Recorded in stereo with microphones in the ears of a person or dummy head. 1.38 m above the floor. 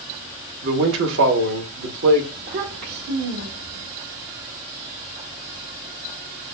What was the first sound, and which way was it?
A man speaking, 75° right (ahead or behind).